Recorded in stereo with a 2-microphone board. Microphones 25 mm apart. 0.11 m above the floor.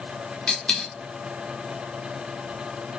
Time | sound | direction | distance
0.5 | a dropped coin | 40° left (ahead or behind) | 3 m